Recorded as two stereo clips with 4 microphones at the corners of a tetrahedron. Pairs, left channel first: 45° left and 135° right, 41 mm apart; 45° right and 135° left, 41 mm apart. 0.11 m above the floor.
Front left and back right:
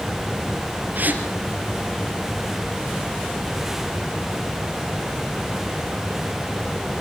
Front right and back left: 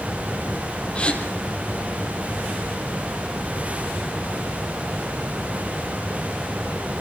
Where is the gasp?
105° right, 3 m.